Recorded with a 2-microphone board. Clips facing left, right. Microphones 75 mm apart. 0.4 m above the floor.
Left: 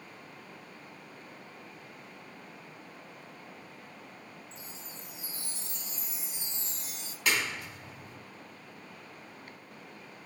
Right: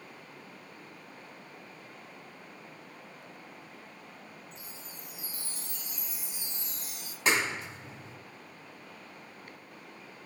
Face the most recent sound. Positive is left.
turn(degrees=-25)  # may be behind; listen again after turning